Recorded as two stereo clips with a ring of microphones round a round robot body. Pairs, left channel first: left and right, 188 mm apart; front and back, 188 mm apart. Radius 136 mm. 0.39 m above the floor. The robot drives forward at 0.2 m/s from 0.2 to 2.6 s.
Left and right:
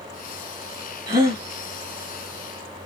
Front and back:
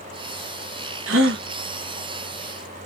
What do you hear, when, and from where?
1.1 s a gasp: 165° right, 1.1 m